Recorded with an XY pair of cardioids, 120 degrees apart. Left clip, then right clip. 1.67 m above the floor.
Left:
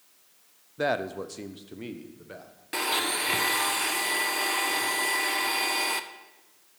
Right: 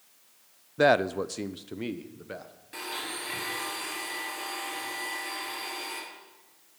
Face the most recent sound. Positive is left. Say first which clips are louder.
# left 9 dB
turn(degrees=60)